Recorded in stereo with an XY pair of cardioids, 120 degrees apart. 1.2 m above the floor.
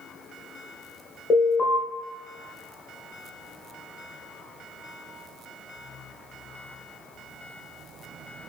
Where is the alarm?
55° left, 0.9 m.